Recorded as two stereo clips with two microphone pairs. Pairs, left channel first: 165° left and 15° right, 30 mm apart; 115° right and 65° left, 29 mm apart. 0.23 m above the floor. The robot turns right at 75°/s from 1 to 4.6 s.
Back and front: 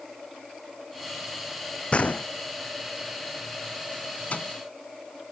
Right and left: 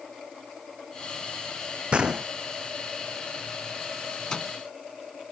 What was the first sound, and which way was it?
A gunshot, 110° left.